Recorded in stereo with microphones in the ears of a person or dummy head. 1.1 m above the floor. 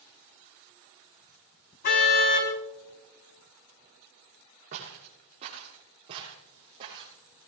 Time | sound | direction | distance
1.8 | a car horn | 55° left (ahead or behind) | 3.5 m
4.7 | footsteps | 40° right (ahead or behind) | 6 m